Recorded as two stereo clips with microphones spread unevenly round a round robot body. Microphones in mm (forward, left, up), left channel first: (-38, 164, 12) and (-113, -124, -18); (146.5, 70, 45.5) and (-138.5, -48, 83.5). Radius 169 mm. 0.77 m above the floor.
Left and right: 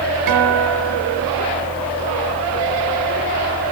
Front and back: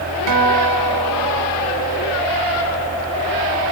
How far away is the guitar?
About 2.5 m.